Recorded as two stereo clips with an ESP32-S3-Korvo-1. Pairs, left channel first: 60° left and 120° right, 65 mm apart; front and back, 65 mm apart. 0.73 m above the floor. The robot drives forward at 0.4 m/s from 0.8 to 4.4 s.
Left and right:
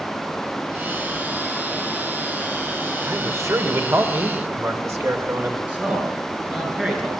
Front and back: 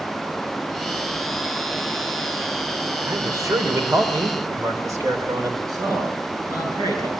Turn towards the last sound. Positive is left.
turn(degrees=170)